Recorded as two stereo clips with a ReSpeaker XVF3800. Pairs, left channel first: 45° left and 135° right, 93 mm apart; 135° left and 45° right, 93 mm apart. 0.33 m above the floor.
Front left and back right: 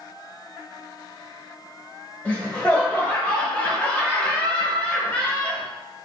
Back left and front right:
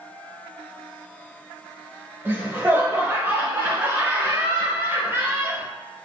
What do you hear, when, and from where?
2.2 s laughter: 10° right, 0.9 m